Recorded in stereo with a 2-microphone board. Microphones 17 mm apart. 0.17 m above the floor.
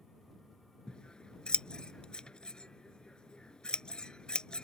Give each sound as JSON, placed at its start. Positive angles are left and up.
{"t": 0.9, "sound": "scissors", "side_deg": 60}